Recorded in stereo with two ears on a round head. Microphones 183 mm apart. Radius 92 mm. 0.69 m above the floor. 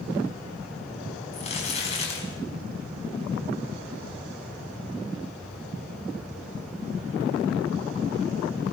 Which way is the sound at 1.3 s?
35° left (ahead or behind).